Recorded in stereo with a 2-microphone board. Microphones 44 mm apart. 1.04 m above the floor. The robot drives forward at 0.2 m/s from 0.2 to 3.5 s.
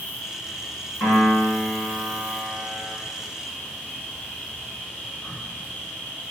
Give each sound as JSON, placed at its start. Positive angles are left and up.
{"t": 0.0, "sound": "an insect", "side_deg": 50, "distance_m": 0.9}
{"t": 1.0, "sound": "a piano", "side_deg": 60, "distance_m": 1.6}